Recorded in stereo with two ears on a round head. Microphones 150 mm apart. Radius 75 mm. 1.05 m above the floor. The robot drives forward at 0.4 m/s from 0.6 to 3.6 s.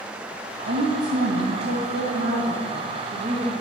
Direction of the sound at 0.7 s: 65° right (ahead or behind).